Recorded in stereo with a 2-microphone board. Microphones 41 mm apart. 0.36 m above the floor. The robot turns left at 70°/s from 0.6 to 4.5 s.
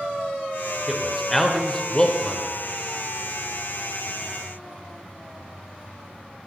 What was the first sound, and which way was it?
A man speaking, 5° right (ahead or behind).